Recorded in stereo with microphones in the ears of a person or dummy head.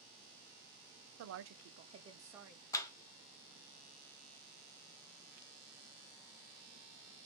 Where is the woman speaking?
85° right, 0.6 m; by 2.6 s 5° right (ahead or behind), 0.8 m.